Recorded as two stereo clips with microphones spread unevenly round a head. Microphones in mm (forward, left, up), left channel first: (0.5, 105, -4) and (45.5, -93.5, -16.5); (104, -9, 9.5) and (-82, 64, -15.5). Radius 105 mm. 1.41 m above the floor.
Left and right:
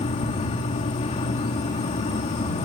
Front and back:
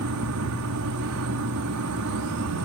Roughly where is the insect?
Behind.